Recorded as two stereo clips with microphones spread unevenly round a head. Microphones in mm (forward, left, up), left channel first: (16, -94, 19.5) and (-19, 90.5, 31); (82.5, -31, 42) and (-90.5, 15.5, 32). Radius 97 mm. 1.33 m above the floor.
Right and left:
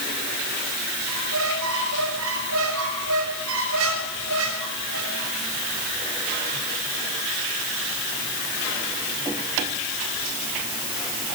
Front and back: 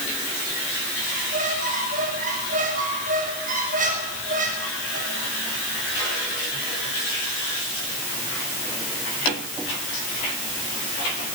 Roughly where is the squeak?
Behind left.